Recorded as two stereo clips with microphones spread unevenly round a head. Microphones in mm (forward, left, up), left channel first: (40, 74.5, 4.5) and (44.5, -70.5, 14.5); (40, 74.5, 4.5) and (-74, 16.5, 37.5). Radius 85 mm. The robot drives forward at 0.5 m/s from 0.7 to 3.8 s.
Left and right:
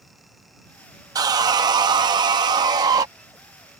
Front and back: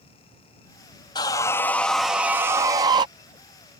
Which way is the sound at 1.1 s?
45° right.